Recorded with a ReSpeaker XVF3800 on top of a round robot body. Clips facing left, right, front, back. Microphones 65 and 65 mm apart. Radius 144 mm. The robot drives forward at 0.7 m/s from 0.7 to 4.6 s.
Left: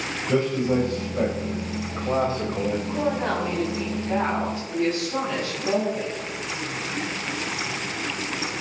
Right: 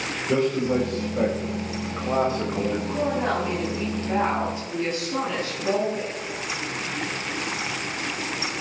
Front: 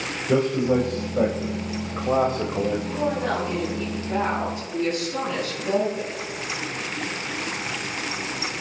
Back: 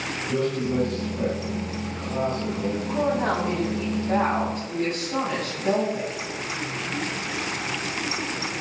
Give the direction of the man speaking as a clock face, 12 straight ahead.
12 o'clock.